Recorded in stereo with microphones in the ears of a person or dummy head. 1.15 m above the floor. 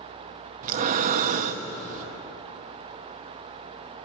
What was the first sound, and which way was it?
Breathing, 35° right (ahead or behind).